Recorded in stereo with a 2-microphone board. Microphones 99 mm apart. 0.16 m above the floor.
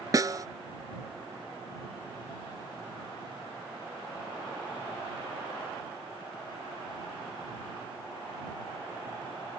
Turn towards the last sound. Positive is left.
turn(degrees=-35)  # may be behind; listen again after turning